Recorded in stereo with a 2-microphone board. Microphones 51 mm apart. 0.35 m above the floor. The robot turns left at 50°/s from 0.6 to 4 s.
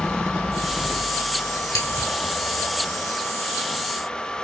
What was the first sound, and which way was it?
Scissors, 75° left (ahead or behind).